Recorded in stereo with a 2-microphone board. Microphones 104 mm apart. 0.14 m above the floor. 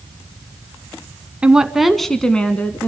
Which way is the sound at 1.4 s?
10° right (ahead or behind).